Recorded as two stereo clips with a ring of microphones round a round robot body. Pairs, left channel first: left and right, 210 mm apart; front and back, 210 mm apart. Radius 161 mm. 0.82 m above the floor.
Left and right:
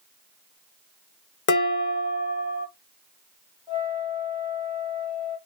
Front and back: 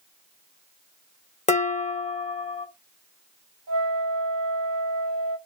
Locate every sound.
1.5 s dishes clattering: 60° left, 0.9 m
3.7 s a flute: 165° right, 0.7 m